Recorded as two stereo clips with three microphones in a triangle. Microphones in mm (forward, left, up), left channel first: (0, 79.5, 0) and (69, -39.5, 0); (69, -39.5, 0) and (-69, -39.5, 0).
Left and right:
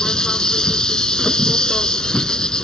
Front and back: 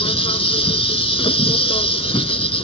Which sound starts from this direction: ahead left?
An insect, at 0.0 s.